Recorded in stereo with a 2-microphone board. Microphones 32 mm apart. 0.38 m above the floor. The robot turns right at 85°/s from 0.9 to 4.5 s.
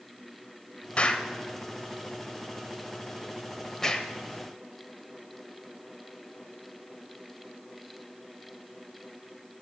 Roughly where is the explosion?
Left.